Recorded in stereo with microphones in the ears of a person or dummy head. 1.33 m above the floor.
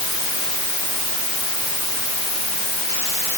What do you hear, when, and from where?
Only background noise.